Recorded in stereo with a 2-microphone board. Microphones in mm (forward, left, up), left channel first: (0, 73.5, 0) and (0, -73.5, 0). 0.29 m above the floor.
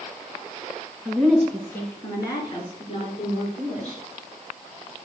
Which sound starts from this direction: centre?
A woman speaking, at 1.1 s.